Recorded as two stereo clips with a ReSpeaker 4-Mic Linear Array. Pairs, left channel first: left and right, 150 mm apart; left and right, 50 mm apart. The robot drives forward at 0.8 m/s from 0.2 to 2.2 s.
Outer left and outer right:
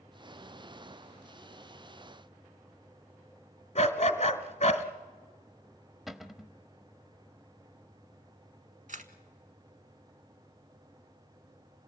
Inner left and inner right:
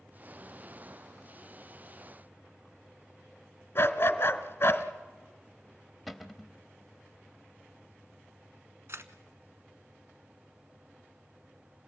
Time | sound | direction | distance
3.8 | a dog barking | 45° left (ahead or behind) | 1.3 m
6.1 | a cupboard door | centre (ahead or behind) | 0.8 m
8.9 | a camera shutter | 60° right (ahead or behind) | 1.1 m